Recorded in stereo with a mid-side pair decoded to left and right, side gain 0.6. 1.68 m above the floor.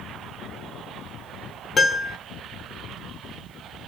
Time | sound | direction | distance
1.8 | a piano | 30° left | 0.7 m